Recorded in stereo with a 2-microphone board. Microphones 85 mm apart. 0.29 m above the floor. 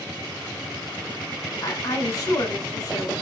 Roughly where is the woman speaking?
Left.